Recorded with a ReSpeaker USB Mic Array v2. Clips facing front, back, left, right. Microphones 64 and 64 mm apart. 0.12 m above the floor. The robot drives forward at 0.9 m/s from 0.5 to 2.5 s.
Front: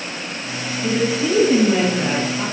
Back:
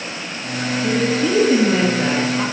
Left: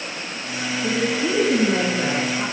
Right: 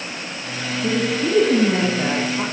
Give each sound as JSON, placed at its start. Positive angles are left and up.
{"t": 0.8, "sound": "a woman speaking", "azimuth_deg": -70, "distance_m": 2.5}